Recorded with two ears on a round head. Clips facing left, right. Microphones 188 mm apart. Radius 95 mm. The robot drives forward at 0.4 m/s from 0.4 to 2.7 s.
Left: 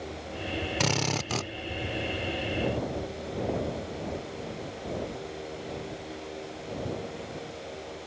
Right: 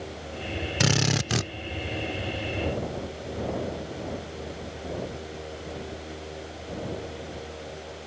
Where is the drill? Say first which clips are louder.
Right 6 dB; 10° right (ahead or behind); by 1.5 s 15° right (ahead or behind).